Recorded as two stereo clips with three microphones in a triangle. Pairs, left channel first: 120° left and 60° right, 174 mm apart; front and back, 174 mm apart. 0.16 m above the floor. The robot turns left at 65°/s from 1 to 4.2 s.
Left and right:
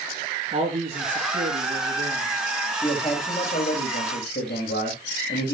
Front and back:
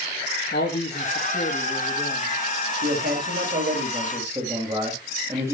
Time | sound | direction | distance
0.5 | a man speaking | 25° right | 3.5 m
2.8 | a man speaking | 165° right | 6 m